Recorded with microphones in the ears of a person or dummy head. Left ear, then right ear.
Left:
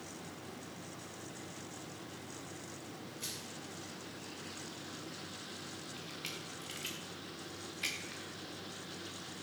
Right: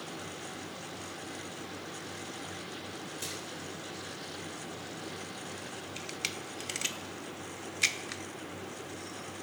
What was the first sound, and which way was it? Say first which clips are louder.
Crushing: right 3 dB; 50° right (ahead or behind).